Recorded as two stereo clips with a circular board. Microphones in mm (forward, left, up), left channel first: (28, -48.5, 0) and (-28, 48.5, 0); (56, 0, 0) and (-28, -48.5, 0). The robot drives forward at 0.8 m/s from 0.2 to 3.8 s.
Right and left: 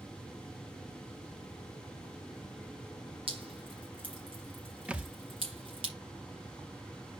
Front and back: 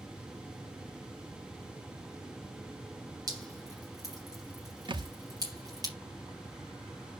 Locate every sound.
3.3 s dripping: 155° left, 3 m; by 5.9 s 160° left, 3.5 m
4.9 s a thud: 160° right, 0.6 m